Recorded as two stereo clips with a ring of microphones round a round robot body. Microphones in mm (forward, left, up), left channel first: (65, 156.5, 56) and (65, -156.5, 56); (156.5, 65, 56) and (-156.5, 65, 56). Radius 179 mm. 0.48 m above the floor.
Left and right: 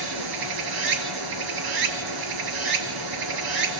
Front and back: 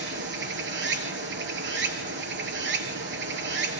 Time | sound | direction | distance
0.0 | running water | 120° right | 1.6 m